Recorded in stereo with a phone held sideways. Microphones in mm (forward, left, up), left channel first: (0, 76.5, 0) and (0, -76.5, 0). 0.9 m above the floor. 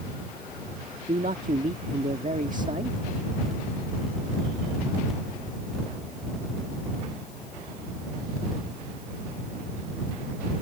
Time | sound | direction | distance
1.1 | a man speaking | 55° right (ahead or behind) | ?